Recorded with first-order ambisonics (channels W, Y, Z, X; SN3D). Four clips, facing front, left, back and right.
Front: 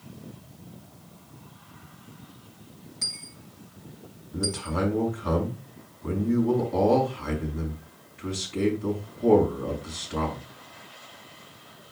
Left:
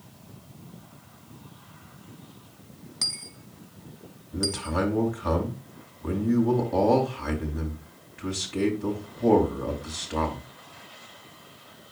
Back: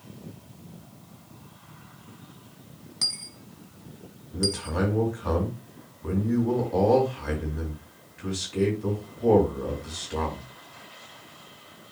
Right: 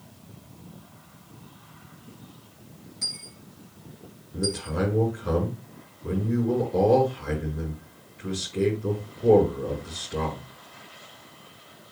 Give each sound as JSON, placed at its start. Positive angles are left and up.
{"t": 3.0, "sound": "a dropped coin", "azimuth_deg": 130, "distance_m": 1.0}
{"t": 4.3, "sound": "a man speaking", "azimuth_deg": 110, "distance_m": 4.5}